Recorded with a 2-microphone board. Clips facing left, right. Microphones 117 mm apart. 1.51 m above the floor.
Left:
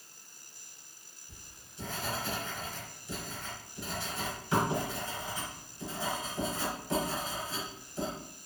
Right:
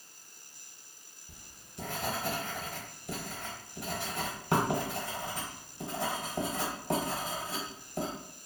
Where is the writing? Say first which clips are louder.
Right 3 dB; 55° right (ahead or behind), 0.9 m.